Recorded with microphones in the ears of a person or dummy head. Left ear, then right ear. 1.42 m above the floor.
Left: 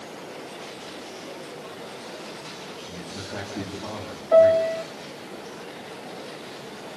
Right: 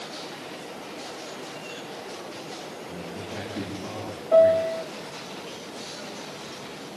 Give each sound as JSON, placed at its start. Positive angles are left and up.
{"t": 2.9, "sound": "a man speaking", "side_deg": 45, "distance_m": 10.0}
{"t": 4.3, "sound": "a piano", "side_deg": 15, "distance_m": 0.5}